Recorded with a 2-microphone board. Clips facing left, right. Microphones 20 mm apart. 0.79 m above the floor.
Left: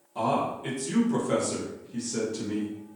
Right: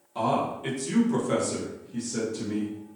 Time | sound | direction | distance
0.1 | a man speaking | 25° right (ahead or behind) | 1.2 m